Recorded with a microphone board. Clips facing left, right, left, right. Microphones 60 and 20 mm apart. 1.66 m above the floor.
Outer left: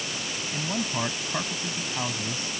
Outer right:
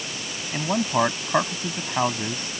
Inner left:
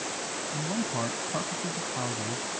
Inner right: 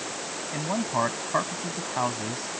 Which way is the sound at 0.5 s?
40° right (ahead or behind).